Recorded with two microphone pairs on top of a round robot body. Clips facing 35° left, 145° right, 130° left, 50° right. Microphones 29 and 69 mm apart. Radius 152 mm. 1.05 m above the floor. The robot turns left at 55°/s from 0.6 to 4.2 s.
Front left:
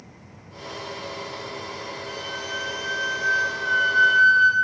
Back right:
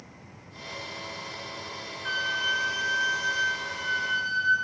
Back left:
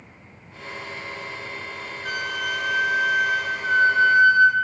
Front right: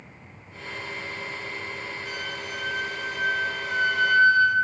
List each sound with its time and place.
2.0 s a flute: 175° left, 1.3 m; by 4.5 s 55° left, 1.3 m